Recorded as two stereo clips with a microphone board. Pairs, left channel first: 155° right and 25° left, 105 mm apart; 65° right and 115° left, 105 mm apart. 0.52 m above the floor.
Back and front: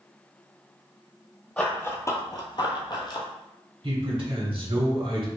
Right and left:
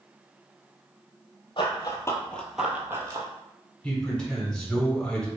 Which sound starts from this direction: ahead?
A man speaking, at 3.8 s.